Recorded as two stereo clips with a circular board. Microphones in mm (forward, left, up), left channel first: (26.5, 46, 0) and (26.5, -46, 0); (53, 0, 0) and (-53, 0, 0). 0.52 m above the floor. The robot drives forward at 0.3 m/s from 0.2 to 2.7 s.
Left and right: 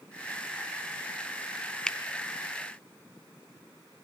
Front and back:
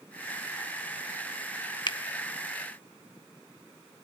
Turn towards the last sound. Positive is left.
turn(degrees=25)